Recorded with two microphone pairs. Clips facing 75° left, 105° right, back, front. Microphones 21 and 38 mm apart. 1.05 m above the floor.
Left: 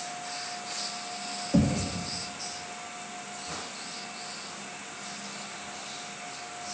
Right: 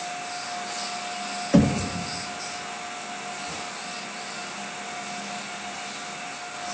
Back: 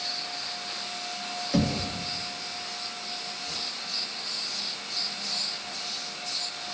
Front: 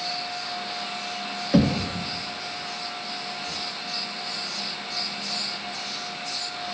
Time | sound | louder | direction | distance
1.5 | knocking | right 6 dB, front 6 dB | 65° right | 1.6 m